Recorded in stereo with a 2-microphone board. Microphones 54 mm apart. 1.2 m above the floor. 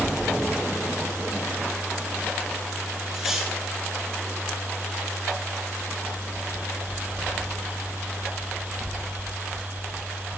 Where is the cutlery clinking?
5° right (ahead or behind), 6.5 m.